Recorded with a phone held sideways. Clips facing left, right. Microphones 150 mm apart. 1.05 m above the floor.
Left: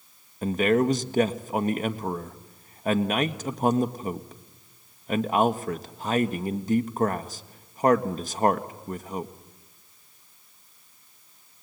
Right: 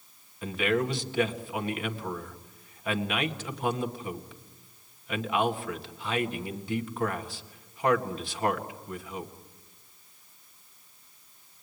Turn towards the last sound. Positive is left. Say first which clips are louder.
# left 6 dB
turn(degrees=40)  # may be behind; listen again after turning